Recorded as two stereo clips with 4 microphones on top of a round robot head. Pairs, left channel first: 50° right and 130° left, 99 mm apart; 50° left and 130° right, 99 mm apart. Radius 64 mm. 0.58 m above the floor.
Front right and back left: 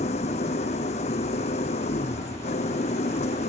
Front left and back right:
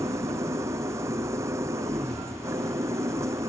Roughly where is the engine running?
Ahead right.